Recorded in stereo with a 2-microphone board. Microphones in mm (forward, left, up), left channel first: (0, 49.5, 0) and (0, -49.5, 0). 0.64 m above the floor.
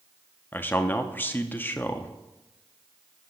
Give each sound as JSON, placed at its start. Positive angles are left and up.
{"t": 0.5, "sound": "a man speaking", "side_deg": 20, "distance_m": 0.7}